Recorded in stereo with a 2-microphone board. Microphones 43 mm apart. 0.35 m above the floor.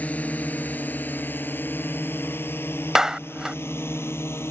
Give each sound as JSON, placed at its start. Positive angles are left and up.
{"t": 0.0, "sound": "a drone", "side_deg": 35}
{"t": 3.0, "sound": "a clap", "side_deg": -15}